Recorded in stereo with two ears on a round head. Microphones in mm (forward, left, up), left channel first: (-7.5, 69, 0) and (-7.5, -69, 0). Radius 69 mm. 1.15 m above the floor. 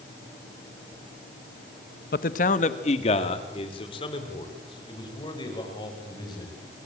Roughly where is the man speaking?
Left.